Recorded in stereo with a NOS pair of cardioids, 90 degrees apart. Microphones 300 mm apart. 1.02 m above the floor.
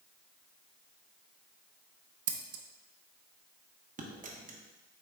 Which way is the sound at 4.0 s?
25° right.